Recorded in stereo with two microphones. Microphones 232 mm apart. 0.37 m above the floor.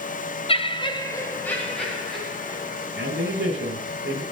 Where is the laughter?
25° left (ahead or behind), 1.0 m; by 2.9 s centre (ahead or behind), 3 m.